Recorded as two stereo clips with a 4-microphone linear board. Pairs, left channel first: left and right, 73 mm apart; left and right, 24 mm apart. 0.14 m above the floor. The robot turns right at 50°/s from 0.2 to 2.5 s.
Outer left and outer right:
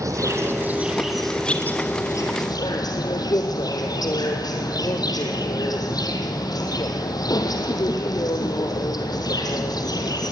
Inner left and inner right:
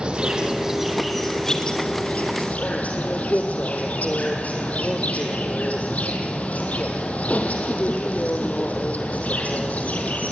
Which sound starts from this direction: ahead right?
An insect, at 0.0 s.